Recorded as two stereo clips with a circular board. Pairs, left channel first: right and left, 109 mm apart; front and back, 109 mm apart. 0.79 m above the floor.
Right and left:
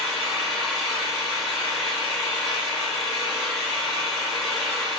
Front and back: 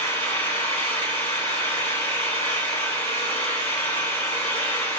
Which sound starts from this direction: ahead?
An engine running, at 0.0 s.